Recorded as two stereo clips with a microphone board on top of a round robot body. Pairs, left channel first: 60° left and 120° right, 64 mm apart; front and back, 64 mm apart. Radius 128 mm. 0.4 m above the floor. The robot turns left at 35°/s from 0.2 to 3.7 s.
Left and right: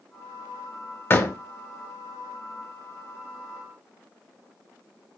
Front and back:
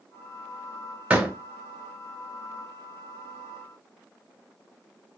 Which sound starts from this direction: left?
A door slam, at 1.1 s.